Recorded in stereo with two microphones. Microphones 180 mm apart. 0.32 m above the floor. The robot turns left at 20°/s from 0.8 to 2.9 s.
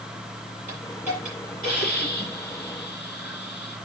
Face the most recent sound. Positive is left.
turn(degrees=100)